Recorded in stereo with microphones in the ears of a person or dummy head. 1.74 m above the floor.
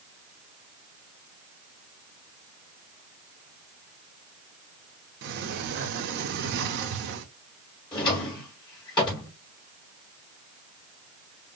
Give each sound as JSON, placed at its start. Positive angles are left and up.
{"t": 5.2, "sound": "a sliding door", "side_deg": -60, "distance_m": 0.9}
{"t": 7.9, "sound": "a drawer", "side_deg": 30, "distance_m": 3.0}